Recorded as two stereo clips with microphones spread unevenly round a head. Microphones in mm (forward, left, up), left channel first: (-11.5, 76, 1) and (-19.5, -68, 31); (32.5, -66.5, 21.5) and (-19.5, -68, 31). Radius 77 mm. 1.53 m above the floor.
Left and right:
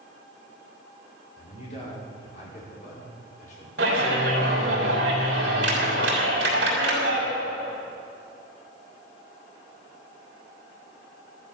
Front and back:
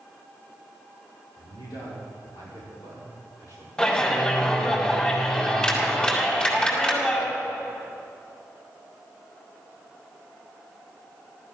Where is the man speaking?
35° left, 5.5 m; by 3.7 s 45° left, 6 m.